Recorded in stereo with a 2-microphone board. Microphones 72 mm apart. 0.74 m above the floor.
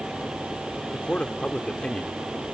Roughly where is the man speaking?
Centre.